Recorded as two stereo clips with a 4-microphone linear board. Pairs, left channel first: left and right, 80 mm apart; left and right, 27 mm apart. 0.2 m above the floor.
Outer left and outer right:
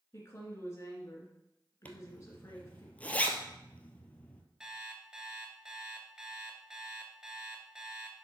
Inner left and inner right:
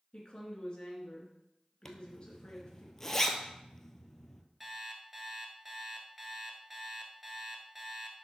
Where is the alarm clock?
10° right (ahead or behind), 1.4 m.